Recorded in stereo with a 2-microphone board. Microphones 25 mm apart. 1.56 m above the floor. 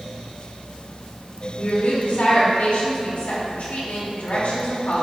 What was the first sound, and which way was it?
A woman speaking, 80° left.